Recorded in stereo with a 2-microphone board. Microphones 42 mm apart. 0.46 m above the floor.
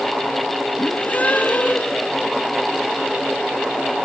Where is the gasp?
35° left (ahead or behind), 3.5 m.